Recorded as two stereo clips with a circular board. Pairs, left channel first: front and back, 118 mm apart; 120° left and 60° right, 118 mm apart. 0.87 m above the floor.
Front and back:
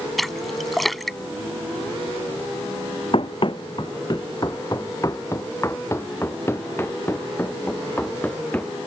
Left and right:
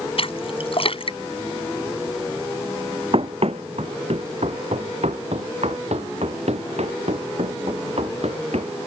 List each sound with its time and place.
0.2 s a splash: 90° left
3.1 s running footsteps: 35° right; by 8.8 s 75° right